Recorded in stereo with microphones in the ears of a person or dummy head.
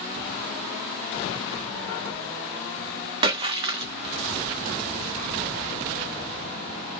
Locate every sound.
3.2 s a splash: 35° right (ahead or behind), 0.9 m